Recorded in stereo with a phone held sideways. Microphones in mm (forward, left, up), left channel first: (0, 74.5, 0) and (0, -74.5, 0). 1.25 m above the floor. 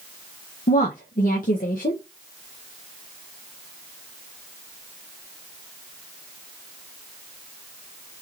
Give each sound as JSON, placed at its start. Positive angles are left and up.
{"t": 0.7, "sound": "a woman speaking", "side_deg": 65, "distance_m": 0.6}